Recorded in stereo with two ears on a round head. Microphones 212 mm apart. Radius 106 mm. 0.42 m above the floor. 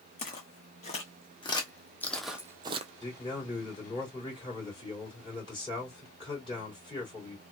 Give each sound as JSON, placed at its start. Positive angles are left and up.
{"t": 0.2, "sound": "footsteps", "side_deg": 35, "distance_m": 1.5}
{"t": 3.0, "sound": "a man speaking", "side_deg": 25, "distance_m": 2.0}